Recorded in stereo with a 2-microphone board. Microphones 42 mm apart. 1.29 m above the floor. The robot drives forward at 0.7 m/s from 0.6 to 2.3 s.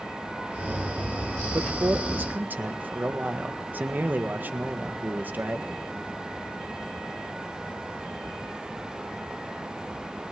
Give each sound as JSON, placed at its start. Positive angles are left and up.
{"t": 1.5, "sound": "a man speaking", "side_deg": -60, "distance_m": 1.3}